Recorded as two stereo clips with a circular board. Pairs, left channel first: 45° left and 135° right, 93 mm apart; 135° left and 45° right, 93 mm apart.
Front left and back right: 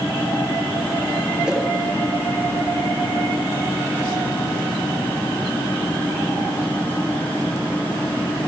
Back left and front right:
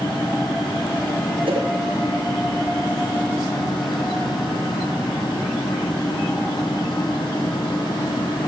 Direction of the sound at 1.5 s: 50° right.